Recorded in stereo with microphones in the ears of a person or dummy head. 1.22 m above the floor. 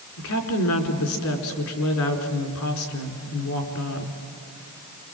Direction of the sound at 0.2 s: 85° left.